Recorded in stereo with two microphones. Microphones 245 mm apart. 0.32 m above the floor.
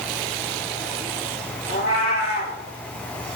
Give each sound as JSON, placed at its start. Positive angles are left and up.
{"t": 1.7, "sound": "a cat meowing", "side_deg": 55, "distance_m": 6.0}